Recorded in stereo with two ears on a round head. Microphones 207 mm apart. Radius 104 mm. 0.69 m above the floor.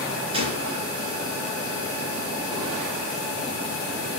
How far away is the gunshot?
About 4 m.